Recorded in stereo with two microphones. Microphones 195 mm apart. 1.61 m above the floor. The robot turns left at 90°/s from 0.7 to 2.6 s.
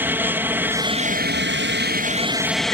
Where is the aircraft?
10° right; by 2.8 s straight behind.